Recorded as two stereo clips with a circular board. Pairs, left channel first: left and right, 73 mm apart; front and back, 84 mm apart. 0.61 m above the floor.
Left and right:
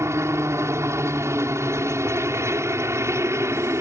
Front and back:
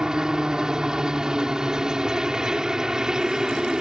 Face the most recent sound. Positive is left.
turn(degrees=-105)